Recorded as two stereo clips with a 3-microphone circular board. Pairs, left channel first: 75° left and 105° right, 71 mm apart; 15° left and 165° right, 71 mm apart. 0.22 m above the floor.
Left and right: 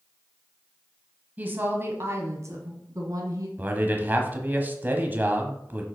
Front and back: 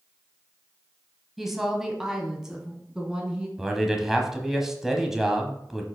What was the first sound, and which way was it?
A woman speaking, 80° right.